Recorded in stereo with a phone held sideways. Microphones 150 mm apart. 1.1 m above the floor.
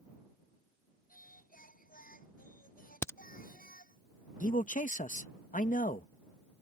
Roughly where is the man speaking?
Left.